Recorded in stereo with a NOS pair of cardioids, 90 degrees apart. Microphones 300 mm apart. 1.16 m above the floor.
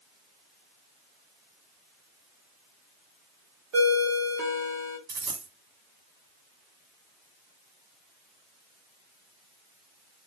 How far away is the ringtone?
About 1.6 m.